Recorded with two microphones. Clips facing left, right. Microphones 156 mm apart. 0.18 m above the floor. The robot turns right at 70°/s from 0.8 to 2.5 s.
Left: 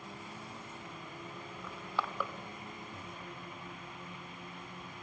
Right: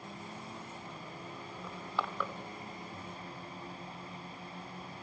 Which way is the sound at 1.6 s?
15° right (ahead or behind).